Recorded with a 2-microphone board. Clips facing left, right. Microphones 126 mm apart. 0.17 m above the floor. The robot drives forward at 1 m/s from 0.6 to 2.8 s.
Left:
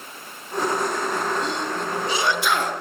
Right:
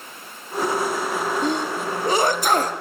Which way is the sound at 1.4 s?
50° right (ahead or behind).